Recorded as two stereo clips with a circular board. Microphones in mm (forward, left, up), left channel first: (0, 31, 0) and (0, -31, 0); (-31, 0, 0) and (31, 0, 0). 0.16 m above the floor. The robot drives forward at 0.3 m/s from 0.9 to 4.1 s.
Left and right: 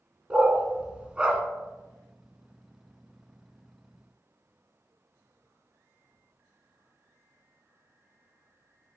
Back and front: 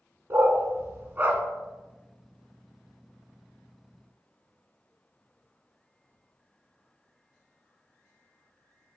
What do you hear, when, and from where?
0.3 s a dog barking: 25° right, 0.6 m; by 1.4 s 35° right, 0.5 m